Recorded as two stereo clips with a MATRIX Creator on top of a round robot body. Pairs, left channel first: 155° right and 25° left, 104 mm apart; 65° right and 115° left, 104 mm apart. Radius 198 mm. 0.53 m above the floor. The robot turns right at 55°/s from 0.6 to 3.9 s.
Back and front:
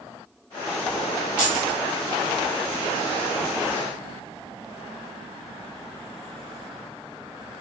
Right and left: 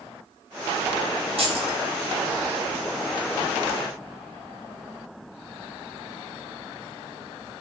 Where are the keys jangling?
100° left, 1.1 m; by 1.8 s 125° left, 1.1 m.